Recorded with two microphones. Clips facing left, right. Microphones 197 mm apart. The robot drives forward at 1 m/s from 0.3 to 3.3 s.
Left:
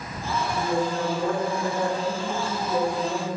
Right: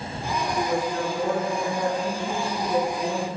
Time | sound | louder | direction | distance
0.6 | a woman speaking | left 1 dB | 45° right (ahead or behind) | 2 m